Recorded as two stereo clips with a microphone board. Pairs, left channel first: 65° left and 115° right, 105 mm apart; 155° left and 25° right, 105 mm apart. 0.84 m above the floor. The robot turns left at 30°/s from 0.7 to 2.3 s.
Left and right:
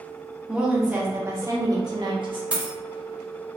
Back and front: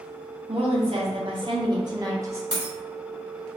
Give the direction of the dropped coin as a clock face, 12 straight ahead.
1 o'clock.